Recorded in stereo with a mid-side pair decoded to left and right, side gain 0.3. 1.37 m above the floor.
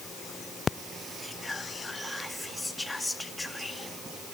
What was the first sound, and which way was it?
Whispering, 15° left.